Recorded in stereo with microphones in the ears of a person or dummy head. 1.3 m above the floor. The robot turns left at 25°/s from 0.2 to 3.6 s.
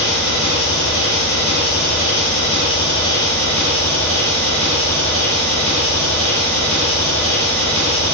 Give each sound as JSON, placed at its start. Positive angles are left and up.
{"t": 0.0, "sound": "an engine running", "azimuth_deg": 100, "distance_m": 0.9}